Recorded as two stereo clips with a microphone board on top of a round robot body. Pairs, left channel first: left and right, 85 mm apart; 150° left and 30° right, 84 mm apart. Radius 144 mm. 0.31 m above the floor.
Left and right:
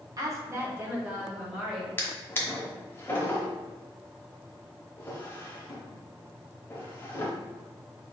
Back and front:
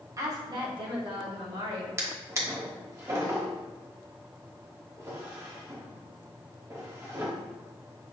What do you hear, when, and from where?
0.2 s a woman speaking: 70° right, 1.2 m; by 1.9 s 10° right, 2.5 m
2.0 s a drawer: 25° left, 1.1 m